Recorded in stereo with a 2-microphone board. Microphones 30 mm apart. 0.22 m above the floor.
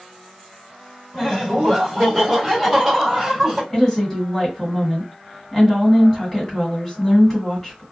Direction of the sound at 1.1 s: 10° left (ahead or behind).